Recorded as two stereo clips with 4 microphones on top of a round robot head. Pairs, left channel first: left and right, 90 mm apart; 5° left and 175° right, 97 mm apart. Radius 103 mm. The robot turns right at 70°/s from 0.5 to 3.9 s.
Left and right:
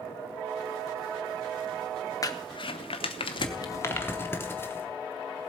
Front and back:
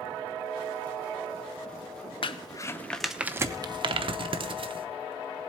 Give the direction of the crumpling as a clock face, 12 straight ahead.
11 o'clock.